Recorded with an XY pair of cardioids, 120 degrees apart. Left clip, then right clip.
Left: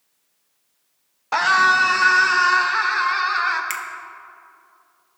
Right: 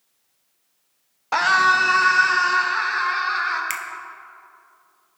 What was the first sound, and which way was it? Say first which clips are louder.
A scream: left 1 dB; 5° right.